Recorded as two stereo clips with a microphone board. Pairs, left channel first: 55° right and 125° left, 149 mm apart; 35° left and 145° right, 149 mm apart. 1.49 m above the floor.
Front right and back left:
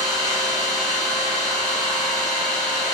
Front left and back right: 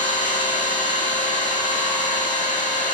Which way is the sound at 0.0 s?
70° left.